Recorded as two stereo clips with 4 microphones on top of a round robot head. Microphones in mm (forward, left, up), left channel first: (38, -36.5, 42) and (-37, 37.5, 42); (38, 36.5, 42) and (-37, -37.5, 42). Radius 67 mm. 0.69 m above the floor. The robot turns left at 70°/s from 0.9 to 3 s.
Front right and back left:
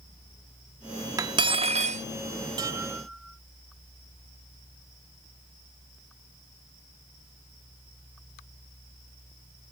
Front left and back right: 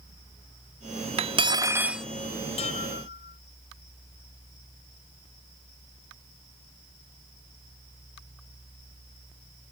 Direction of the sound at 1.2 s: 165° right.